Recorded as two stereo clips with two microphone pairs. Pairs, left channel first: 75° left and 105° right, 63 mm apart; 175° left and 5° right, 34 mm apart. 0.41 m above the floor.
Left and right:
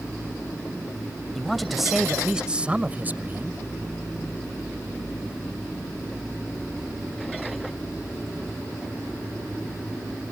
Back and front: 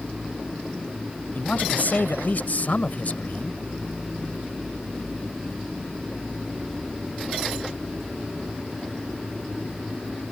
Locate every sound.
1.4 s a woman speaking: 160° left; by 3.6 s 150° right